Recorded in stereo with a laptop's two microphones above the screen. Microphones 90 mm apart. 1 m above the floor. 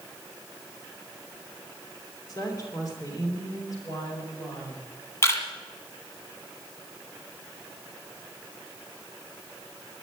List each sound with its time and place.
2.3 s a woman speaking: 45° left (ahead or behind), 3 m; by 4.8 s 40° left (ahead or behind), 5 m
5.2 s a camera shutter: 30° left (ahead or behind), 1.7 m